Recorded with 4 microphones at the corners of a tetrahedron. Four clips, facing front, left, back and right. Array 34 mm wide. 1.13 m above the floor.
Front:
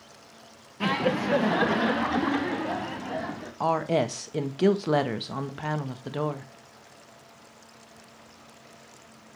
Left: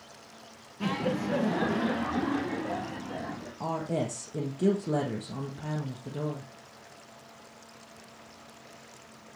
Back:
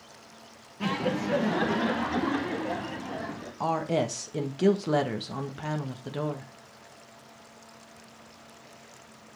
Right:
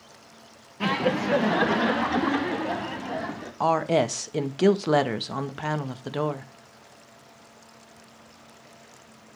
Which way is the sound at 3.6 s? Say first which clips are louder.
Right 10 dB, front 3 dB; 70° right.